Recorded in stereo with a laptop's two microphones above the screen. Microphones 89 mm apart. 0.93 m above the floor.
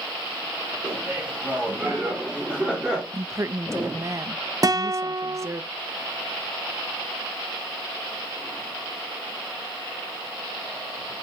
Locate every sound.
0.8 s laughter: 15° right (ahead or behind), 4 m; by 3.0 s 5° right (ahead or behind), 2.5 m
3.1 s a woman speaking: 30° right (ahead or behind), 0.7 m
4.6 s a guitar: 40° right (ahead or behind), 1.1 m